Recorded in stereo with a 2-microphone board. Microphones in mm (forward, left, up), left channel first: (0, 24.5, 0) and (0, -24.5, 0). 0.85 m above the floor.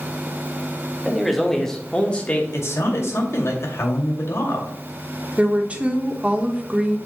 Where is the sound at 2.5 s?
65° left (ahead or behind), 2 m.